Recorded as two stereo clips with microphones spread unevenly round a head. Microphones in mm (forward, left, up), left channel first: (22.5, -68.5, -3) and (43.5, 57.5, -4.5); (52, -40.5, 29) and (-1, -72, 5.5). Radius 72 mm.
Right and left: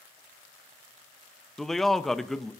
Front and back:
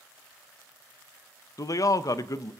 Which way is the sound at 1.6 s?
10° right.